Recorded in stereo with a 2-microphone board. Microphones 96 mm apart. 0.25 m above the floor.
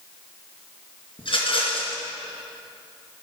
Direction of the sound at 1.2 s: 65° left (ahead or behind).